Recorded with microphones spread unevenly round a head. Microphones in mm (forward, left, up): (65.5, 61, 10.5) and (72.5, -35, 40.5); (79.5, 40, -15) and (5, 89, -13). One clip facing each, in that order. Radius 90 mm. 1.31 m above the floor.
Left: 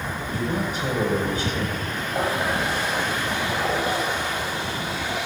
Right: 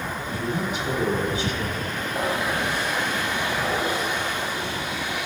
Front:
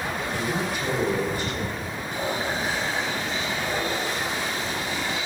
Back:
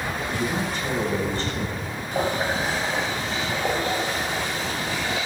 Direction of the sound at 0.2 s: 45° left.